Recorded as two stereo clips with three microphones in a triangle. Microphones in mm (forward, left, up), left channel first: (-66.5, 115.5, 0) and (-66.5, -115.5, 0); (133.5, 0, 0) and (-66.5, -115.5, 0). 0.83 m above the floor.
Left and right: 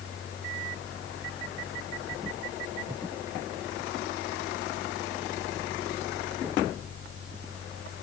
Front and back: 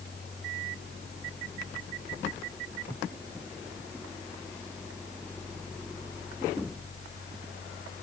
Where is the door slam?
No door slam in this recording.